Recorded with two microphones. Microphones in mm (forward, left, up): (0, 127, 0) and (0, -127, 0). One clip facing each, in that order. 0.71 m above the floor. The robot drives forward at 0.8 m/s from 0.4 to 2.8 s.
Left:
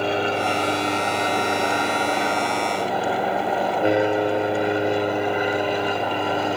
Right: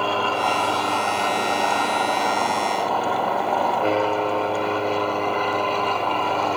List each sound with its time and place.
0.0 s an aircraft: 20° left (ahead or behind); by 6.6 s 15° left (ahead or behind)